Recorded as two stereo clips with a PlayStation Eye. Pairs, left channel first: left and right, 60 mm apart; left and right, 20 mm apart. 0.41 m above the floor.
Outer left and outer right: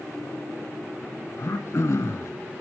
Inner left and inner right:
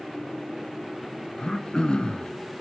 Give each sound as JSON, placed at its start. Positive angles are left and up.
{"t": 1.4, "sound": "throat clearing", "side_deg": 55, "distance_m": 0.6}